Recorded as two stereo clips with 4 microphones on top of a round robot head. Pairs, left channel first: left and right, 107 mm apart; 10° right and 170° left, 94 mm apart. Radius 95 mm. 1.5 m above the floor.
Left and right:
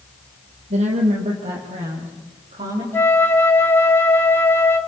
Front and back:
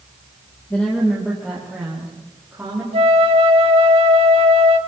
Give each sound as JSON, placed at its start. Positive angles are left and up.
{"t": 0.7, "sound": "a woman speaking", "azimuth_deg": -90, "distance_m": 2.0}
{"t": 2.9, "sound": "a flute", "azimuth_deg": 160, "distance_m": 1.6}